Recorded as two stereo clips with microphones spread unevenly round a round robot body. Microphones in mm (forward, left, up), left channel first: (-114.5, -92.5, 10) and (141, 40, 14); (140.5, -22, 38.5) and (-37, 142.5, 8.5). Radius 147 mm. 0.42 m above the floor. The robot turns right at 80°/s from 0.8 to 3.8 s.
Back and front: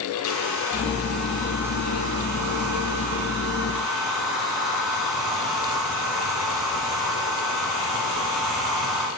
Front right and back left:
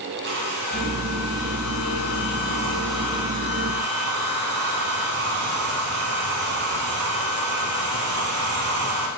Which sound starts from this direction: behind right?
A hair dryer, at 0.2 s.